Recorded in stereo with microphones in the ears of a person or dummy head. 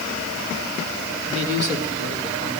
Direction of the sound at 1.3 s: 40° right (ahead or behind).